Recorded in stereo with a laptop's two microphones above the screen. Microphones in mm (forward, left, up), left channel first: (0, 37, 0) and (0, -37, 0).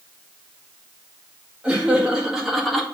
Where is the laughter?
15° right (ahead or behind), 1.9 m; by 2.9 s 5° left (ahead or behind), 1.0 m.